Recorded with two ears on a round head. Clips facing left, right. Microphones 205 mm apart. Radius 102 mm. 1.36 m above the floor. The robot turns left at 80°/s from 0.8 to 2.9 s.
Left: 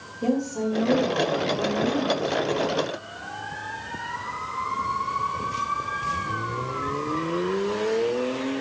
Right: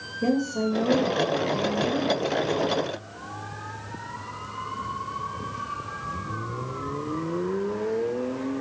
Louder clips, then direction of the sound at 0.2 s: Even; 155° right.